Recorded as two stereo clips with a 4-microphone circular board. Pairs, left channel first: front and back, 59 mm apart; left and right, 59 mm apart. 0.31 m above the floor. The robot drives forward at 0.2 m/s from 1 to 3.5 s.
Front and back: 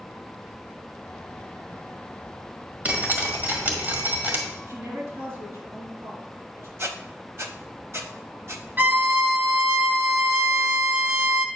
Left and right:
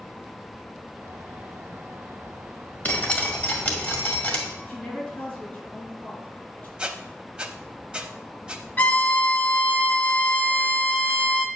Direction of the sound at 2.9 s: 135° left.